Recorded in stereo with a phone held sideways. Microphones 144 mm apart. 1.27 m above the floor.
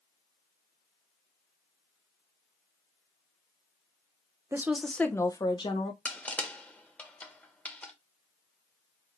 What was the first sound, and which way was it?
A woman speaking, 20° right (ahead or behind).